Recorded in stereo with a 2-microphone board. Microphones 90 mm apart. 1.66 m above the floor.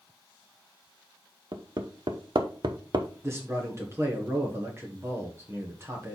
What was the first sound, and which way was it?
Hammering, 55° right (ahead or behind).